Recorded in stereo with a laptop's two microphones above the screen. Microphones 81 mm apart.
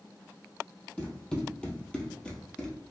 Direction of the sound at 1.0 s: 10° left (ahead or behind).